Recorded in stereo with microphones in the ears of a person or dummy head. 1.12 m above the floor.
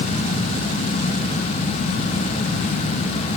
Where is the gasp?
I don't hear a gasp.